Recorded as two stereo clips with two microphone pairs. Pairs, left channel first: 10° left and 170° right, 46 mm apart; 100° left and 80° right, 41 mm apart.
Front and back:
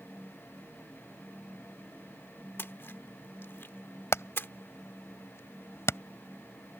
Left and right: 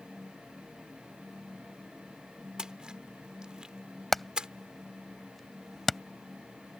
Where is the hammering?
15° left.